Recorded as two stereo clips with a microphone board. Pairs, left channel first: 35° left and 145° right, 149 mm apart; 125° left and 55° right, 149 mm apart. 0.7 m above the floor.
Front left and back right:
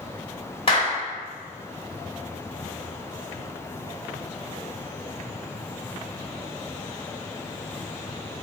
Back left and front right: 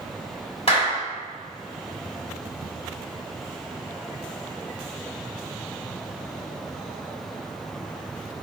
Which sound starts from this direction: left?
A clap, at 0.7 s.